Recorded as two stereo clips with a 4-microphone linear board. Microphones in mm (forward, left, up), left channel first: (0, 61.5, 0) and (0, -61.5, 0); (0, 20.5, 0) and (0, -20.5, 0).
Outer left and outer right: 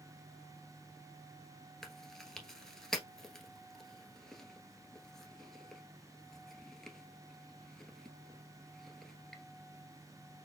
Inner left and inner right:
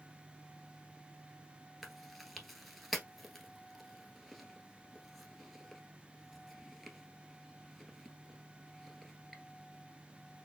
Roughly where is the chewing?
Centre.